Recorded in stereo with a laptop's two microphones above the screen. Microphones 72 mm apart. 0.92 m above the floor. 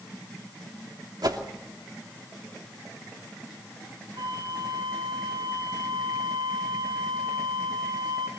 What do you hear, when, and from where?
1.2 s a whoosh: 65° right (ahead or behind), 2.5 m
4.2 s a flute: 75° right (ahead or behind), 5 m